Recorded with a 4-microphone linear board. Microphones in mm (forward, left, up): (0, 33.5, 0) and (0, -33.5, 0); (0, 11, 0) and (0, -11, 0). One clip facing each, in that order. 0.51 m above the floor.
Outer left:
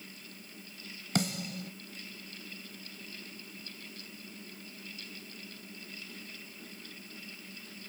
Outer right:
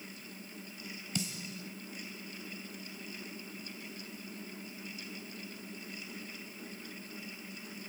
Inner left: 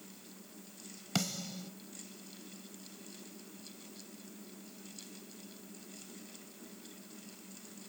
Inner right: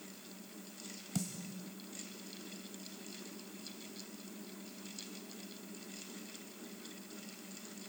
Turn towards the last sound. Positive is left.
turn(degrees=65)  # may be behind; listen again after turning